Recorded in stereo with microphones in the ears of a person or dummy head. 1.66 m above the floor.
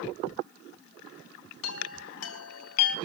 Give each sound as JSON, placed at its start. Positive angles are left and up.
{"t": 1.6, "sound": "a chime", "side_deg": 90, "distance_m": 2.5}